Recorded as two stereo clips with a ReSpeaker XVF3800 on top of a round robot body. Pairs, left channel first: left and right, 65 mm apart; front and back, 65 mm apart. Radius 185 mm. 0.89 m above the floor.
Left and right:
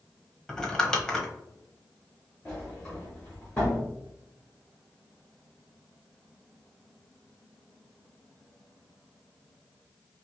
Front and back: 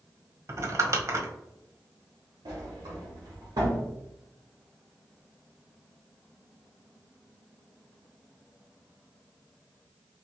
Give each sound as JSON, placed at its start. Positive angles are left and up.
{"t": 0.5, "sound": "crumpling", "azimuth_deg": 170, "distance_m": 1.1}
{"t": 2.5, "sound": "a sliding door", "azimuth_deg": 170, "distance_m": 0.7}